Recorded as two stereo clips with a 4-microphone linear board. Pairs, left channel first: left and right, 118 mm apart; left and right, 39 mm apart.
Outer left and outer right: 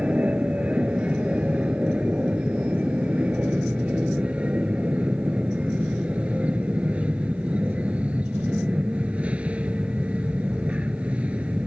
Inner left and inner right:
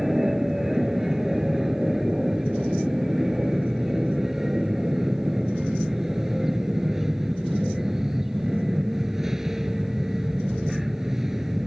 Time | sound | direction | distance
0.0 | an aircraft | 10° right (ahead or behind) | ?